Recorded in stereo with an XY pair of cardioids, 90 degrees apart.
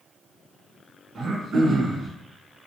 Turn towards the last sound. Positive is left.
turn(degrees=-60)